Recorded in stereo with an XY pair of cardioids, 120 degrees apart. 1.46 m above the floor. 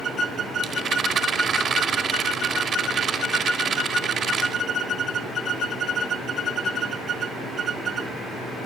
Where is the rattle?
50° right, 2.5 m.